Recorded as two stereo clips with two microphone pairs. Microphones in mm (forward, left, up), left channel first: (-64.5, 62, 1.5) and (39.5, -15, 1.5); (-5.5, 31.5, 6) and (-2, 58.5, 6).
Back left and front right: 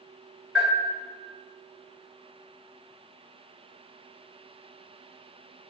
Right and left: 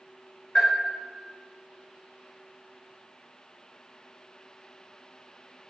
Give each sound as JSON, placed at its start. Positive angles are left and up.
{"t": 0.6, "sound": "a bell", "azimuth_deg": -115, "distance_m": 1.5}